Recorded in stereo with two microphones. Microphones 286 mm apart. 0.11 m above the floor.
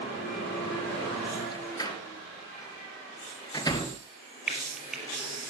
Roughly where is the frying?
Centre.